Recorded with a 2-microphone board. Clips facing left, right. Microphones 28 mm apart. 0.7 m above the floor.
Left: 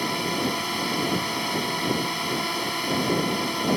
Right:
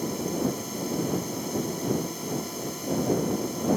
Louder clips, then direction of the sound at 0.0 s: Left 3 dB; 65° left (ahead or behind).